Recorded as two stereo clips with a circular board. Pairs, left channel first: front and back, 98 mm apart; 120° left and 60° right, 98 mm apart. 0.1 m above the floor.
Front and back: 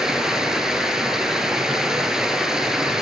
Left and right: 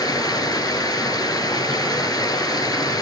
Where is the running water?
100° left, 1.1 m.